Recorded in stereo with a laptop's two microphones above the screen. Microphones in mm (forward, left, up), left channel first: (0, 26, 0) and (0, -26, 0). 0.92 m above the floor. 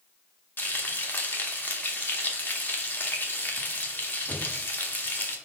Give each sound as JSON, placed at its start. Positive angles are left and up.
{"t": 0.6, "sound": "frying", "side_deg": 40, "distance_m": 0.8}